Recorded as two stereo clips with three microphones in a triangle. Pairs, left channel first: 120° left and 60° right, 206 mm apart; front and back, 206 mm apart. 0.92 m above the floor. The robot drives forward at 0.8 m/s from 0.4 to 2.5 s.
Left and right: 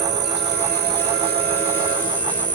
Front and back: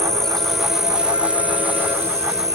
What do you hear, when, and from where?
0.0 s an insect: 90° right; by 2.6 s 105° right